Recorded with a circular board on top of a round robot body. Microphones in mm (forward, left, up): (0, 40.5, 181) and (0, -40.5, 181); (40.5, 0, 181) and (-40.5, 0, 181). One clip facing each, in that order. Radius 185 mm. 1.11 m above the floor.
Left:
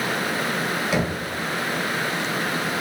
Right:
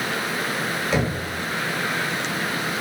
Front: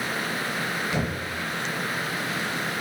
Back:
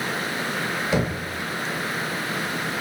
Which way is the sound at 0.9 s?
175° left.